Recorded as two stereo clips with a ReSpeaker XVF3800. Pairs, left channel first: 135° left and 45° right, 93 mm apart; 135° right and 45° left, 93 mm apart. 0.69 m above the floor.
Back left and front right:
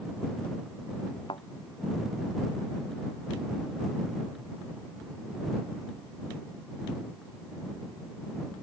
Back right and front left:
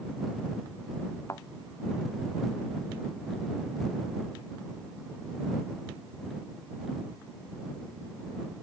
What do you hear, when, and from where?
1.3 s a thud: 165° left